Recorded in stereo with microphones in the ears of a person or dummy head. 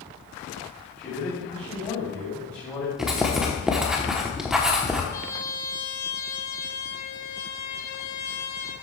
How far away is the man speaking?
About 4 m.